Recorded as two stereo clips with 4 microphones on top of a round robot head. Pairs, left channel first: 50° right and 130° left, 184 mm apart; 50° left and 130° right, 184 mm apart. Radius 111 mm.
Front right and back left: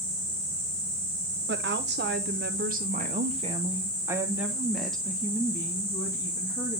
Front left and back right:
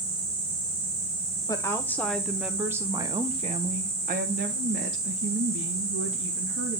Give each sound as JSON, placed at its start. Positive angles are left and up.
{"t": 1.5, "sound": "a woman speaking", "azimuth_deg": 125, "distance_m": 1.3}